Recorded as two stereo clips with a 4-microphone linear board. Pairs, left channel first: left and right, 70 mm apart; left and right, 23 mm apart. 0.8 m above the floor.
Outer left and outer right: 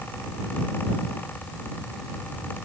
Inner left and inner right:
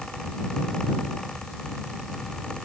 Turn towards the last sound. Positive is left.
No sound to turn to.